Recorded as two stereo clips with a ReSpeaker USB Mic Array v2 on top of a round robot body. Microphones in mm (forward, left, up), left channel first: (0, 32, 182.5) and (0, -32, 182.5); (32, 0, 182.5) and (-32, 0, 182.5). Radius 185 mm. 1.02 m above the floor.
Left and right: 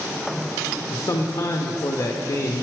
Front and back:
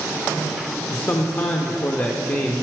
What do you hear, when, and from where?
0.9 s a man speaking: 55° left, 0.7 m